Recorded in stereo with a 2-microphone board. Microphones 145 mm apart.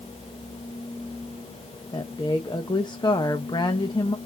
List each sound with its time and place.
1.9 s a woman speaking: 30° left (ahead or behind), 0.8 m